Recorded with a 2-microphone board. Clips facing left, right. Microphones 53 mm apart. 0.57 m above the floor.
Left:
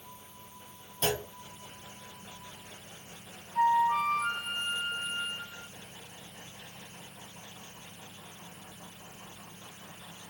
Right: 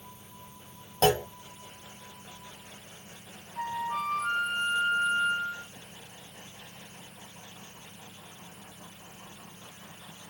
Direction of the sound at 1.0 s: 65° right (ahead or behind).